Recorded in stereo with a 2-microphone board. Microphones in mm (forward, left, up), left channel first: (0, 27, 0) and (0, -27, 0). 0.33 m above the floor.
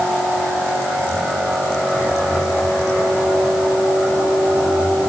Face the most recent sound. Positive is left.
No sound to turn to.